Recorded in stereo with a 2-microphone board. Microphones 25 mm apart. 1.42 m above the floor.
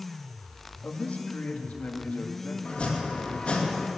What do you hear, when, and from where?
0.8 s a man speaking: 65° left (ahead or behind), 1.8 m
2.6 s chopping: 40° left (ahead or behind), 2.5 m